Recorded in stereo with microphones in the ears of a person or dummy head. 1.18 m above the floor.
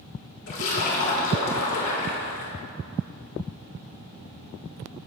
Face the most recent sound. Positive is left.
turn(degrees=70)  # may be behind; listen again after turning